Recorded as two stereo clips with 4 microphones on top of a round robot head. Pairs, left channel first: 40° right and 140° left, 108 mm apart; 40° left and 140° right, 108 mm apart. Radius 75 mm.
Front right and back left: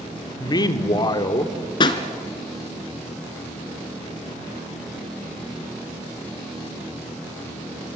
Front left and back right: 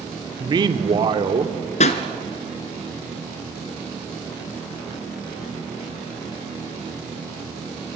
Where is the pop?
10° left, 1.6 m.